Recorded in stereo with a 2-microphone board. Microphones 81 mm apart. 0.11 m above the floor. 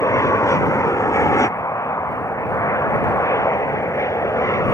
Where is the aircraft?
40° left (ahead or behind).